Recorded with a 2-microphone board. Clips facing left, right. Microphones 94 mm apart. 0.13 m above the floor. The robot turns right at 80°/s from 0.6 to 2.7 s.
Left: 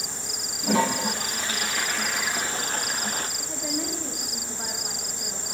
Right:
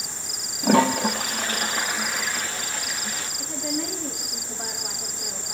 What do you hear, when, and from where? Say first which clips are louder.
0.6 s a toilet flushing: right 5 dB; 120° right, 3.5 m; by 3.3 s 45° left, 3.5 m
3.4 s a woman speaking: right 2 dB; 5° left (ahead or behind), 6.5 m